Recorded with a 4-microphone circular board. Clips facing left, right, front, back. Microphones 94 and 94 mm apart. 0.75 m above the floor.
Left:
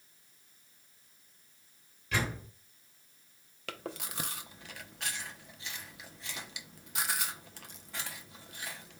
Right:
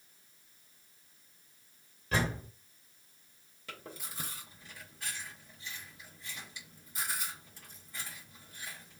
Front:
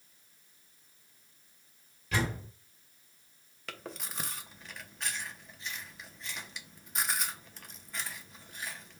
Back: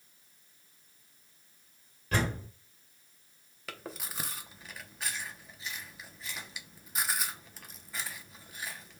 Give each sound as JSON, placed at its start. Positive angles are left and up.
{"t": 2.1, "sound": "a door slam", "azimuth_deg": -140, "distance_m": 1.6}
{"t": 3.7, "sound": "chewing", "azimuth_deg": 90, "distance_m": 0.5}